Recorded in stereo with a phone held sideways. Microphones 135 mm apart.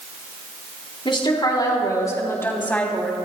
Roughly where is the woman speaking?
Left.